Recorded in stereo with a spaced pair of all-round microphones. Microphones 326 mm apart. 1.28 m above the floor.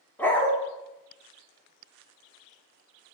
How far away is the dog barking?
About 0.8 m.